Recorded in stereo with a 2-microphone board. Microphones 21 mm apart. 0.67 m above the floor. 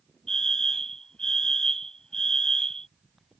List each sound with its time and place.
0.3 s a fire alarm: 30° left (ahead or behind)